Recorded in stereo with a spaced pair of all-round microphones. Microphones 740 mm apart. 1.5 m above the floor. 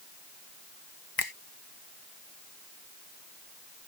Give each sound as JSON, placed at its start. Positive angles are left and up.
{"t": 1.2, "sound": "a finger snap", "side_deg": 30}